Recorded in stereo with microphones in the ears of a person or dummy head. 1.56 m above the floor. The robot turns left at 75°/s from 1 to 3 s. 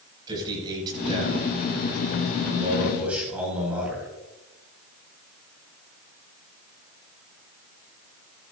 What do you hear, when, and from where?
0.3 s a man speaking: 25° right, 7 m; by 4.1 s 175° right, 7 m